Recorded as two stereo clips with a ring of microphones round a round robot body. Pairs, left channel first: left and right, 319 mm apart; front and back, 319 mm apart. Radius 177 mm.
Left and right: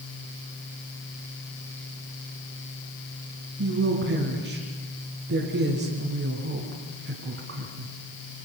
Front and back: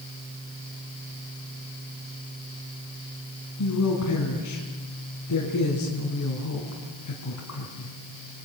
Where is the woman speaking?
40° right, 4 m.